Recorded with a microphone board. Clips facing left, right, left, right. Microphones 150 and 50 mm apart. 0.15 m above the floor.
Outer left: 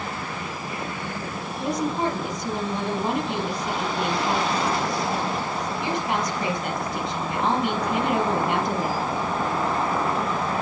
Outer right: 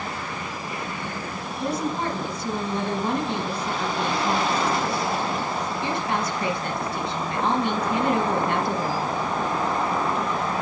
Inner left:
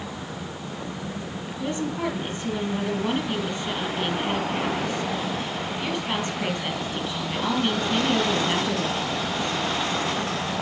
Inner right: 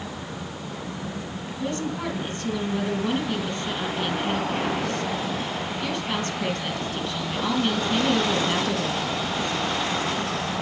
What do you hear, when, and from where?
1.6 s a woman speaking: 20° left (ahead or behind), 3.5 m